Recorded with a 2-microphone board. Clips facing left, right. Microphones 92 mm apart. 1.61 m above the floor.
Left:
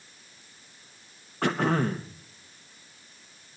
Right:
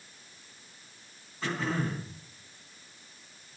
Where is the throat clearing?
70° left (ahead or behind), 1.2 m.